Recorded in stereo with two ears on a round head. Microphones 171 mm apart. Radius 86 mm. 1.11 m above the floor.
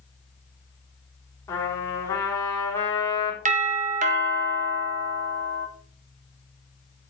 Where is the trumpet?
15° left (ahead or behind), 3 m.